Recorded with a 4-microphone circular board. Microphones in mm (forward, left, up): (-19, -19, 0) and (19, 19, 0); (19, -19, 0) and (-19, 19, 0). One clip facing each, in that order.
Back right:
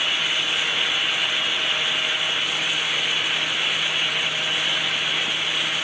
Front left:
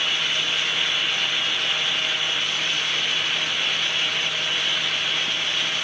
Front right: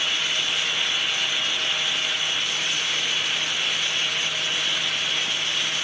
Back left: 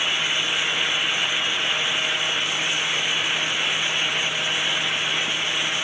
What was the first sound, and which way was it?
Only background noise.